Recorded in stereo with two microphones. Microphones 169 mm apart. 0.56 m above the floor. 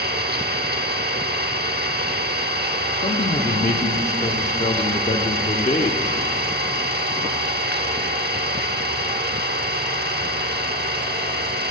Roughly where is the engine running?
Right.